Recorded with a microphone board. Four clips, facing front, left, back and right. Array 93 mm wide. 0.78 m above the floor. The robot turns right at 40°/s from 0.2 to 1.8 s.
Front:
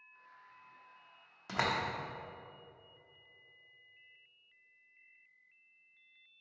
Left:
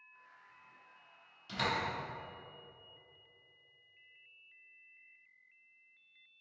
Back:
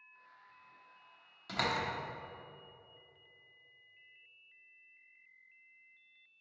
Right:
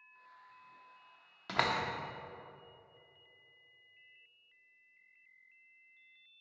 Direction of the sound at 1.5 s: 70° right.